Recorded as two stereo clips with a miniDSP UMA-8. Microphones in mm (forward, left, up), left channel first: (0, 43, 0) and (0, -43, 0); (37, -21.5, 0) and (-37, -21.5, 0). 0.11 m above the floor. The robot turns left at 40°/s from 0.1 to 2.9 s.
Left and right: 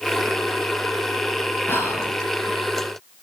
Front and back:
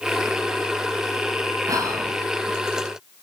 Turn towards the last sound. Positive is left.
turn(degrees=105)